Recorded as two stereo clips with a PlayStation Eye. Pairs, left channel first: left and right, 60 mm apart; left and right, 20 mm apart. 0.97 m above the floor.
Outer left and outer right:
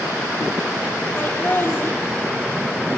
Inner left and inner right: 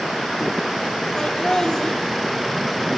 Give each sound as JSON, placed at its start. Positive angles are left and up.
{"t": 1.2, "sound": "laughter", "side_deg": 40, "distance_m": 3.5}